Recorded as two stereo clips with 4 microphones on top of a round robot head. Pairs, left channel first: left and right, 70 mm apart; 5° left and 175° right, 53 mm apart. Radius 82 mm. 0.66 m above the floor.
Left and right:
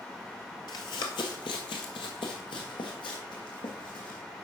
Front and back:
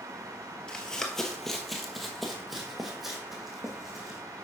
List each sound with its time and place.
0.7 s running footsteps: 80° left, 0.8 m; by 4.2 s 105° left, 2.5 m